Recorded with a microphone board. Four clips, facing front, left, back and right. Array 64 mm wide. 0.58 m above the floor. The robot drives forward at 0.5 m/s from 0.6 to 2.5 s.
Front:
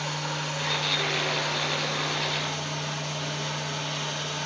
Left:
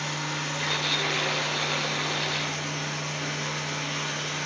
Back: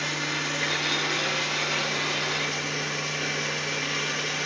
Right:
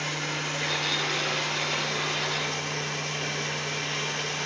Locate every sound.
0.0 s running water: 175° left, 8 m